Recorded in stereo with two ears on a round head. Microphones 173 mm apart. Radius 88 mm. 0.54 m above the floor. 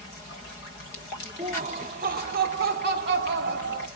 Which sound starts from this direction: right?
Laughter, at 1.4 s.